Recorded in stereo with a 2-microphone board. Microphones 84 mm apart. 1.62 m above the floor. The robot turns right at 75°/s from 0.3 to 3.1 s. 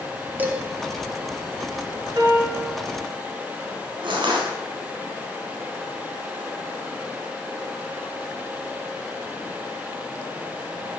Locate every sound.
0.4 s dishes clattering: 20° right (ahead or behind), 2 m; by 0.6 s 35° right (ahead or behind), 2 m
2.1 s a piano: 55° right, 4 m; by 2.8 s 5° right, 4 m
4.0 s crushing: 75° right (ahead or behind), 4.5 m